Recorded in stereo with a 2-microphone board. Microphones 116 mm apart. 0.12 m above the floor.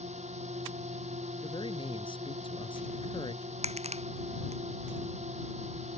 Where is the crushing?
65° right (ahead or behind).